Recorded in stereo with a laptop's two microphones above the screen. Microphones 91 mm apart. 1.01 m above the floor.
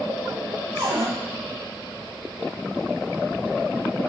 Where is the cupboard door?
45° right (ahead or behind), 0.9 m.